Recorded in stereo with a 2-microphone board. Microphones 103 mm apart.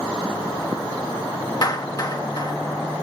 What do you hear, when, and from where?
1.6 s a clap: 40° left (ahead or behind), 1.1 m